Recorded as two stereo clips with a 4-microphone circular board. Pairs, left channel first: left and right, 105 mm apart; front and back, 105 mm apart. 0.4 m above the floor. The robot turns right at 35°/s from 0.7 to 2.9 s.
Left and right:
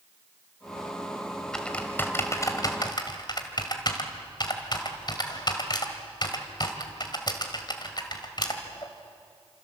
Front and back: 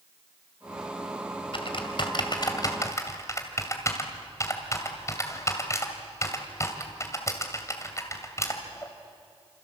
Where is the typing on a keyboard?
5° left, 2.5 m; by 8.9 s 55° left, 2.5 m.